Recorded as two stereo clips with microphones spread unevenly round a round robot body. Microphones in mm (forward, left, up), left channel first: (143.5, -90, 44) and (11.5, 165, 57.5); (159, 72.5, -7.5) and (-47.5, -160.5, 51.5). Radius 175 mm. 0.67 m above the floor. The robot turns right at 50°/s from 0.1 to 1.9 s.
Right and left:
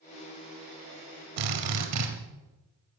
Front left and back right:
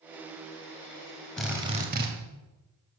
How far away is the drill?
About 1.9 m.